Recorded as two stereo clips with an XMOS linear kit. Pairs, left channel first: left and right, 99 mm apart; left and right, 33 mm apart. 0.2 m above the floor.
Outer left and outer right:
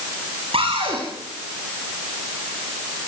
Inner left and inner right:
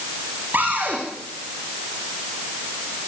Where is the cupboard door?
75° right (ahead or behind), 8 m.